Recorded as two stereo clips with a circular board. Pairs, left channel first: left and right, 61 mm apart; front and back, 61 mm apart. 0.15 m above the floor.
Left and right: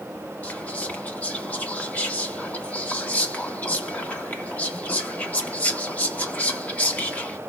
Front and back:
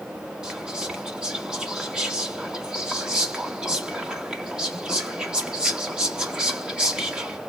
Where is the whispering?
120° left, 1.1 m.